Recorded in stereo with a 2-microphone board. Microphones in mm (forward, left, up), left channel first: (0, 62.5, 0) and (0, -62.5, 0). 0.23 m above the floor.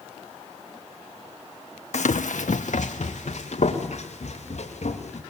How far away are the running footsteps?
About 0.6 m.